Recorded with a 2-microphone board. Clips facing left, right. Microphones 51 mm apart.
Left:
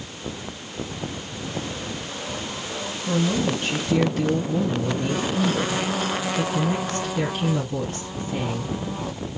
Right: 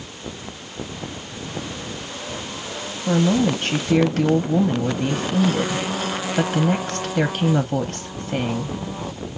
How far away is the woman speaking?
About 0.8 m.